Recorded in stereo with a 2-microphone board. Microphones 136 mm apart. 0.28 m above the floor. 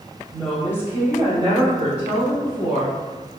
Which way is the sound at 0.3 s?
10° left (ahead or behind).